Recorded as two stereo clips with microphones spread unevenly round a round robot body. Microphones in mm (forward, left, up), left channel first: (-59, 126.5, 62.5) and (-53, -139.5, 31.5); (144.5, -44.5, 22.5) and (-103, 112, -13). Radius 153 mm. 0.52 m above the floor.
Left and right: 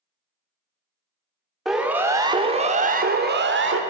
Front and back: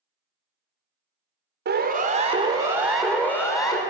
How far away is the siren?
About 2 m.